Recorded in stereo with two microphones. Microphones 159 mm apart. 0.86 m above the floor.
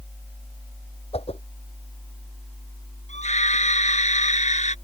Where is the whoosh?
40° left (ahead or behind).